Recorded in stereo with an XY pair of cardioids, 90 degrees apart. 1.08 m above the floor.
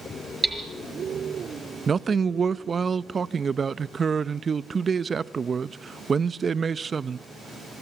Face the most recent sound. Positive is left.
turn(degrees=-40)